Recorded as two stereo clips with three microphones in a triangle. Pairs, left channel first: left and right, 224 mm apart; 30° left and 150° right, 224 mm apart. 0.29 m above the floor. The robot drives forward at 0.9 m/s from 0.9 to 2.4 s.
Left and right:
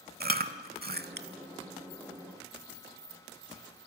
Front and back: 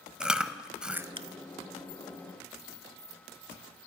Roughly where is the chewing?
Ahead right.